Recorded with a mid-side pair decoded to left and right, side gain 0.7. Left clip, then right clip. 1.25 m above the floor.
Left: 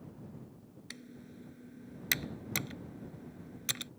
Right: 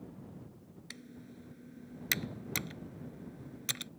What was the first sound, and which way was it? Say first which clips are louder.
Typing on a keyboard: left 1 dB; 5° left.